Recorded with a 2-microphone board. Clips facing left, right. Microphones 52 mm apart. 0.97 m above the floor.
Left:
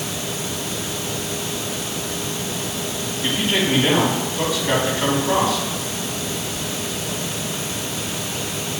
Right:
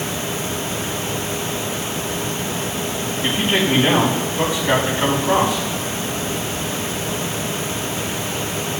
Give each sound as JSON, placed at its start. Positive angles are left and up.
{"t": 3.2, "sound": "a man speaking", "side_deg": -15, "distance_m": 4.5}